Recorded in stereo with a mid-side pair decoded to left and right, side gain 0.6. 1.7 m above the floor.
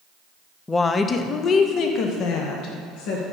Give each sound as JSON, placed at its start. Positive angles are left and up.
{"t": 0.7, "sound": "a woman speaking", "azimuth_deg": 20, "distance_m": 0.8}